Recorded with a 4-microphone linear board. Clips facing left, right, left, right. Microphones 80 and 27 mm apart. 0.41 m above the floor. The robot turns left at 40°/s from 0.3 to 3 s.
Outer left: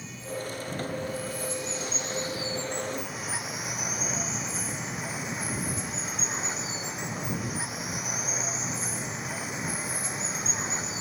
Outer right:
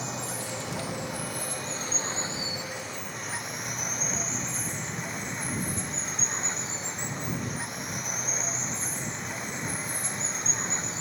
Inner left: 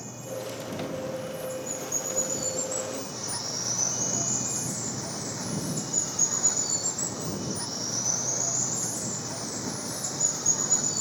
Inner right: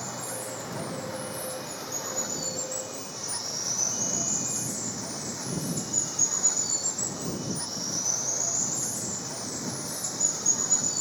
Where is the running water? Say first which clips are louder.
Outer right 1 dB, even; 75° right; by 11.0 s 175° left.